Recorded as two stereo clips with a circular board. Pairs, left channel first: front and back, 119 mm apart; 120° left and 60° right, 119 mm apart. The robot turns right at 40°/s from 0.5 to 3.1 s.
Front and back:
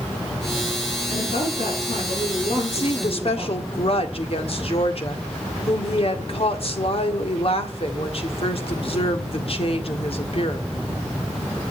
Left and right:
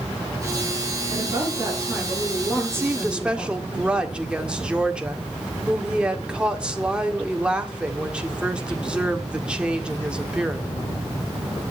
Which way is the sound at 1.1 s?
20° right.